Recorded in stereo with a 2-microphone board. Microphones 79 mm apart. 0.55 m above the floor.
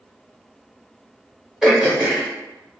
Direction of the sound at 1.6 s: 5° right (ahead or behind).